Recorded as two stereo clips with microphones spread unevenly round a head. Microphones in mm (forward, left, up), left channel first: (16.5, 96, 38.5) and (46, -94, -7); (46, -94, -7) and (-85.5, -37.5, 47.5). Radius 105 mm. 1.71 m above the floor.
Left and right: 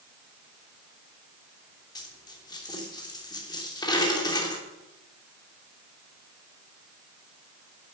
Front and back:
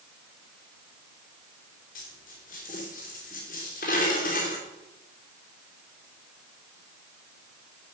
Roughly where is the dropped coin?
Ahead left.